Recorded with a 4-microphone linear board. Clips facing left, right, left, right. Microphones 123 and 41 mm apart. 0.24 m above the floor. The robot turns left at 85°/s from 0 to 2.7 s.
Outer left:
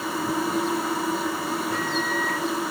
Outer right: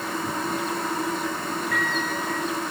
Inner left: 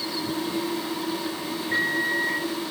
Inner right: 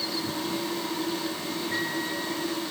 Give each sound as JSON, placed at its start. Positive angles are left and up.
{"t": 1.7, "sound": "a microwave", "azimuth_deg": 155, "distance_m": 2.5}